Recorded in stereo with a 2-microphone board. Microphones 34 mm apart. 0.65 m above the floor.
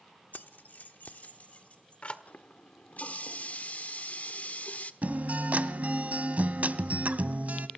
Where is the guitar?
50° right (ahead or behind), 1.1 m.